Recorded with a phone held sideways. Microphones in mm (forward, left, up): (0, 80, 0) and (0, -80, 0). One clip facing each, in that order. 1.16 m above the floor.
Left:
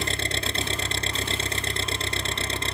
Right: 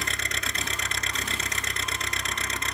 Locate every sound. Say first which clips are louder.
0.0 s an engine running: left 5 dB; 30° left (ahead or behind)